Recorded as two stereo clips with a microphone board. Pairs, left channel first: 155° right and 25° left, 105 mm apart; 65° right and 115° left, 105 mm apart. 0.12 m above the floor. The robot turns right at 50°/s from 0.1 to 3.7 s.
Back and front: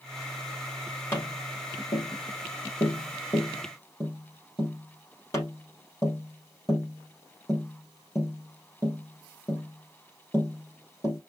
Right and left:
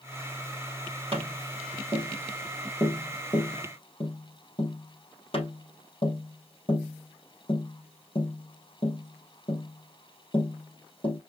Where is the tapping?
135° left, 3 m; by 11.2 s 95° right, 3 m.